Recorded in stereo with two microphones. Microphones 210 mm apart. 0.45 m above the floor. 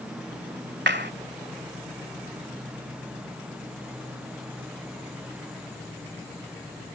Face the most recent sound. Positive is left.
turn(degrees=-65)  # may be behind; listen again after turning